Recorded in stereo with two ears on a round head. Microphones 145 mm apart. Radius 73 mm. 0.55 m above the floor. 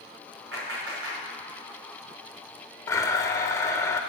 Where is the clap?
85° right, 5.5 m.